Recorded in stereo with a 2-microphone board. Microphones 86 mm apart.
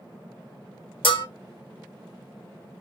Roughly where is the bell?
Left.